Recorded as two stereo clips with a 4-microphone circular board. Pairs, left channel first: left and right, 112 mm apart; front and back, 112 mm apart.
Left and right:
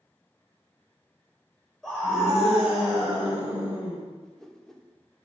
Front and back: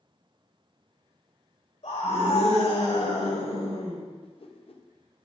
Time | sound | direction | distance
1.8 | a scream | straight ahead | 4.5 m
4.2 | a whoosh | 5° left | 0.8 m